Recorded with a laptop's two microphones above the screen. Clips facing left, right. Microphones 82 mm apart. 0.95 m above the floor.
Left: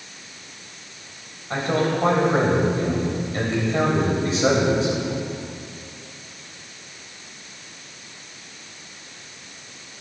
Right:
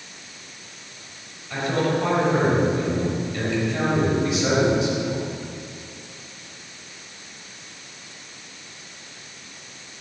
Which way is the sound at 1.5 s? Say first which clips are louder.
Left 1 dB; 35° left (ahead or behind).